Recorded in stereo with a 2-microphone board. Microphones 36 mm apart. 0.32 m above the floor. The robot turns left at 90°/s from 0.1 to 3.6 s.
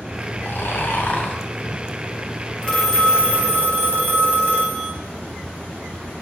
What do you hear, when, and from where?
0.4 s snoring: 115° left, 1.8 m; by 1.4 s 25° left, 1.8 m
2.6 s a phone ringing: 20° left, 3 m; by 4.9 s 70° right, 3 m